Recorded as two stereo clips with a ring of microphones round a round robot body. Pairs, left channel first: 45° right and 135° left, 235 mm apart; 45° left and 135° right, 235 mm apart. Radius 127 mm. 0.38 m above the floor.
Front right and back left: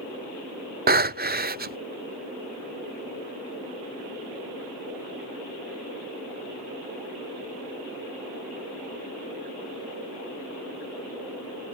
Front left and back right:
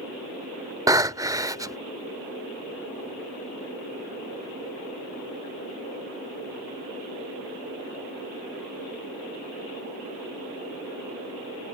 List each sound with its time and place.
0.9 s breathing: 155° left